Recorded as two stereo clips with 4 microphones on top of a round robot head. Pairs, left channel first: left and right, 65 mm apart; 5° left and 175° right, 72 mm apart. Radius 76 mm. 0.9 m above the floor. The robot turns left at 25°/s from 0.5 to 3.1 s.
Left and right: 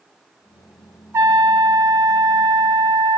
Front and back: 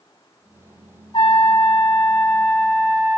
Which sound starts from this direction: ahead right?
A trumpet, at 1.1 s.